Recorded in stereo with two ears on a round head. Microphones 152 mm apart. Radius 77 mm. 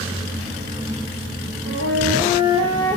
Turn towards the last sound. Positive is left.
turn(degrees=-45)  # may be behind; listen again after turning